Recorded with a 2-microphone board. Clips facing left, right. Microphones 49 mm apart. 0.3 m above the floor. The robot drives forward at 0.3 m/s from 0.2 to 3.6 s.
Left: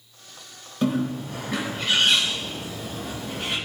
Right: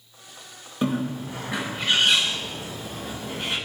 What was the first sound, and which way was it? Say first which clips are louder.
A bird: left 1 dB; 15° right (ahead or behind).